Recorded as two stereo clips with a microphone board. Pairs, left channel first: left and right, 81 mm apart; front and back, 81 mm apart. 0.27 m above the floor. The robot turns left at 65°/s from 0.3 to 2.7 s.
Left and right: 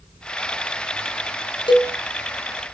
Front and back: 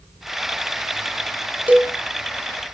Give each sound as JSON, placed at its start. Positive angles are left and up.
{"t": 1.7, "sound": "a cowbell", "azimuth_deg": 110, "distance_m": 2.5}